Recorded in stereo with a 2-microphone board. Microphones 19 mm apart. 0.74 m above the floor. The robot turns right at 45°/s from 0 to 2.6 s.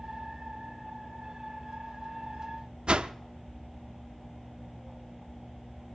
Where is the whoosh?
60° right (ahead or behind), 0.5 m.